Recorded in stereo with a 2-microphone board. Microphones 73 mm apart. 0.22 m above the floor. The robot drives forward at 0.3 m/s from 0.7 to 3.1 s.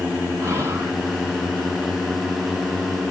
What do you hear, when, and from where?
0.4 s whispering: 40° right (ahead or behind), 2 m